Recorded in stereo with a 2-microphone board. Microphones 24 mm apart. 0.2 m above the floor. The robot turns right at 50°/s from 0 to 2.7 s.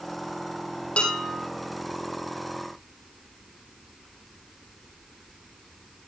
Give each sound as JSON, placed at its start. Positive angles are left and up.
{"t": 1.0, "sound": "dishes clattering", "side_deg": 65, "distance_m": 5.0}